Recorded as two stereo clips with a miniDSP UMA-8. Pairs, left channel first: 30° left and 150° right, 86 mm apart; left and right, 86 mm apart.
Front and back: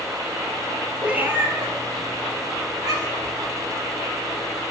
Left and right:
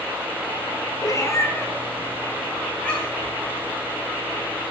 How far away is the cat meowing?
About 1.4 m.